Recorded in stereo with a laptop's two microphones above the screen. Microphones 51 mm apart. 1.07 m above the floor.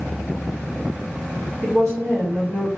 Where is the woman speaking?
55° right (ahead or behind), 2.0 m.